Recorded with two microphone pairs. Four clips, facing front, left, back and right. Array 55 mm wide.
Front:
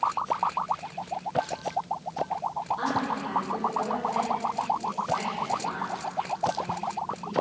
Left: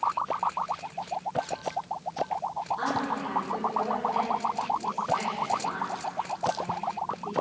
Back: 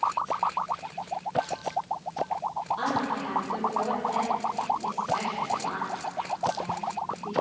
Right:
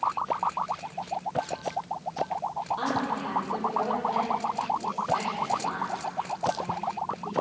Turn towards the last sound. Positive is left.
turn(degrees=-125)